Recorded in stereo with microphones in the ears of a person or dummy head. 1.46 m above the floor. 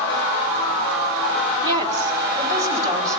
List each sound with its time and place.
1.6 s a woman speaking: 25° right (ahead or behind), 3 m; by 3.2 s 15° right (ahead or behind), 4 m